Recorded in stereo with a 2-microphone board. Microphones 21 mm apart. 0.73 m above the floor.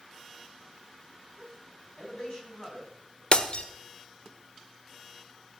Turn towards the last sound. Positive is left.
turn(degrees=45)  # may be behind; listen again after turning